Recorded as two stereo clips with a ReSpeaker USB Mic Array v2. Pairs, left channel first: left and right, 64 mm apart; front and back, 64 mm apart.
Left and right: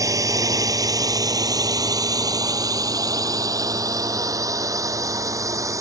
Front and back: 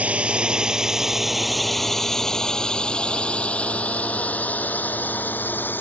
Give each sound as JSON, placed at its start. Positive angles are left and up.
{"t": 0.0, "sound": "a drone", "azimuth_deg": -110}